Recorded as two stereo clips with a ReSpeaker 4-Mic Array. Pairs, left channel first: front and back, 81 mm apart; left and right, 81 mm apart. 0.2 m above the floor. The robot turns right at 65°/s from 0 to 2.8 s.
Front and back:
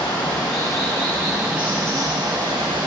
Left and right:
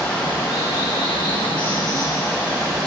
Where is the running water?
Straight ahead, 1.5 m; by 2.9 s 175° right, 1.5 m.